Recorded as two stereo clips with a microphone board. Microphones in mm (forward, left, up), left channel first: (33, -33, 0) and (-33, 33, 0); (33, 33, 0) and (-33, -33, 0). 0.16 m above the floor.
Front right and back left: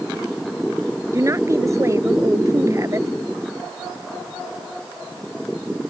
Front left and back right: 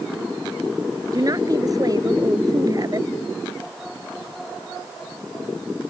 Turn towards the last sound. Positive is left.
turn(degrees=-175)